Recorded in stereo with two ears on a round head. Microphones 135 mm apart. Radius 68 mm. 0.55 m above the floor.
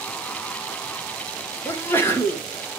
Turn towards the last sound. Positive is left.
turn(degrees=15)  # may be behind; listen again after turning